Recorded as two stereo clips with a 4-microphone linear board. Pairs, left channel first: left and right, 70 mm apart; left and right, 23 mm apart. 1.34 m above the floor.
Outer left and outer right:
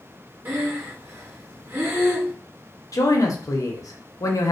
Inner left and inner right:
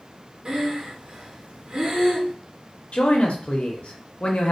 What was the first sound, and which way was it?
Breathing, 35° right (ahead or behind).